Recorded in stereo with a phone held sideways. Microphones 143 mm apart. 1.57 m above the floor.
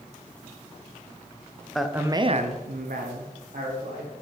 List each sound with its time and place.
1.8 s a man speaking: 5° left (ahead or behind), 0.7 m; by 4.1 s 75° right (ahead or behind), 1.8 m